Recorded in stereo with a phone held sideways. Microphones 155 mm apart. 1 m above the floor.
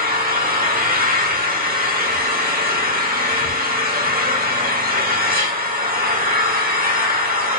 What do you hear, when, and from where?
0.0 s an engine running: 75° right (ahead or behind), 1.3 m